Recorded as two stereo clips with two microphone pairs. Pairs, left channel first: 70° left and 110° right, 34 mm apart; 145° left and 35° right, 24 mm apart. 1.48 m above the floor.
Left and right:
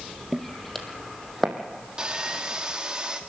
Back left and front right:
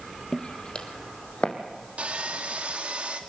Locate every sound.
0.3 s footsteps: 160° left, 1.7 m
2.0 s sawing: 45° right, 1.7 m